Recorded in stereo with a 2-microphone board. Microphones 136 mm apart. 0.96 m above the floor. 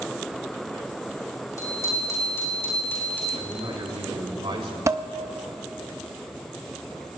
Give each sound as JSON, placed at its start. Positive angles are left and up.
{"t": 1.6, "sound": "a bicycle bell", "side_deg": 25, "distance_m": 6.0}
{"t": 3.4, "sound": "a man speaking", "side_deg": -45, "distance_m": 3.0}
{"t": 4.9, "sound": "dishes clattering", "side_deg": -20, "distance_m": 0.5}